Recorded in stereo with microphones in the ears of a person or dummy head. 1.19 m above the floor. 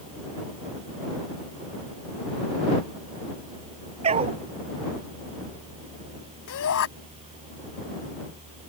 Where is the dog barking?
30° right (ahead or behind).